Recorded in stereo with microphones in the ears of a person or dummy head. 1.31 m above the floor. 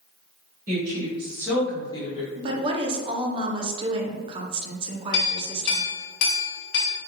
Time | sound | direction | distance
0.7 | a woman speaking | 50° right (ahead or behind) | 1.8 m
2.4 | a woman speaking | 30° right (ahead or behind) | 0.6 m
5.1 | a clink | 65° left (ahead or behind) | 1.0 m